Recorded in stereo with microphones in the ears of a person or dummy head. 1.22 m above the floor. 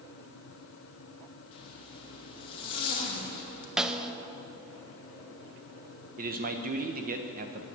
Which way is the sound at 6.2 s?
40° right (ahead or behind).